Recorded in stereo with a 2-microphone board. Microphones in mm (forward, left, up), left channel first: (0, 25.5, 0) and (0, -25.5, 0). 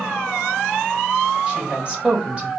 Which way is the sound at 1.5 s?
20° right (ahead or behind).